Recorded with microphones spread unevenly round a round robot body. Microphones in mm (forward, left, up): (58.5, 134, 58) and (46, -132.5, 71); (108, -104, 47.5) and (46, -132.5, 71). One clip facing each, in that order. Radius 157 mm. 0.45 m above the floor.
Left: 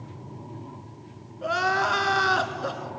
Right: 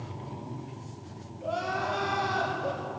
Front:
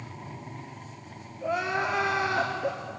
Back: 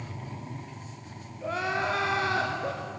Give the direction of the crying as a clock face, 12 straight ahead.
8 o'clock.